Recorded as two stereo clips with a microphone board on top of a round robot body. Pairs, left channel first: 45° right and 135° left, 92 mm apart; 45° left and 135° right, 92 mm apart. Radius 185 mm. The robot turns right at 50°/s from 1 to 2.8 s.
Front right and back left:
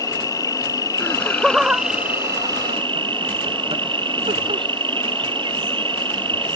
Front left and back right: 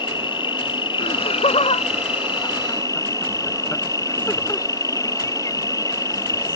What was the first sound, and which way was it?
An insect, 10° left.